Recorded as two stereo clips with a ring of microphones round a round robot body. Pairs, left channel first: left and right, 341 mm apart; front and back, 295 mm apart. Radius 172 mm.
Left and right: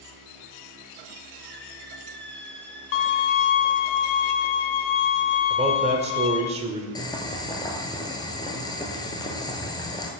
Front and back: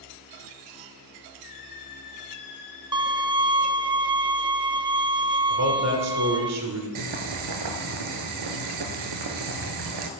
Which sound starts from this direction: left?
A violin, at 2.9 s.